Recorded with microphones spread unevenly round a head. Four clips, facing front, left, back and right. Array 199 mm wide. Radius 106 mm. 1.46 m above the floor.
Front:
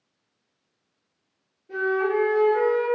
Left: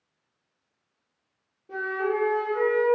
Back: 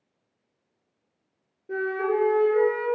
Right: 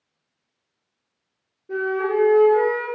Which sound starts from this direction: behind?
A flute, at 1.7 s.